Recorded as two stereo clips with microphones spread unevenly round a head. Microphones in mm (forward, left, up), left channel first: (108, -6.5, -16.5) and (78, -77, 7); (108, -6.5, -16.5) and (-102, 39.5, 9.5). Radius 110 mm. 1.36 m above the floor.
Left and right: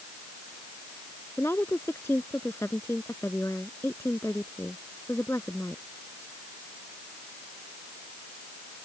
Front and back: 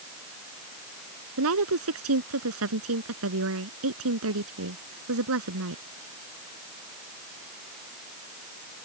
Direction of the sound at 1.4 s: 145° left.